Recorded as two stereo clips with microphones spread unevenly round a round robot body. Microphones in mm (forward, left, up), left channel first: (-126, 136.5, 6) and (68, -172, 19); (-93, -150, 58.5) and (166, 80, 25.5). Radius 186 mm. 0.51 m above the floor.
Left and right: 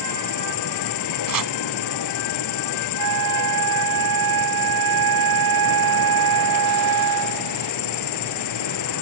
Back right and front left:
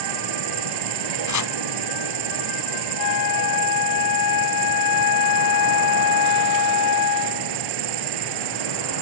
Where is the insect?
75° left.